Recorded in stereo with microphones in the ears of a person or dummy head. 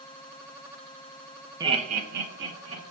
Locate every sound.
1.6 s laughter: 15° right (ahead or behind), 0.6 m; by 2.8 s 70° right (ahead or behind), 1.3 m